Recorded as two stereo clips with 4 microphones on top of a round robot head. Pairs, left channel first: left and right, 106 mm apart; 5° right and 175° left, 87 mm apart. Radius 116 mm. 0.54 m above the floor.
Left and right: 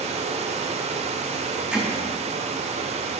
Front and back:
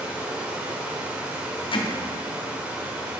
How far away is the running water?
About 0.7 m.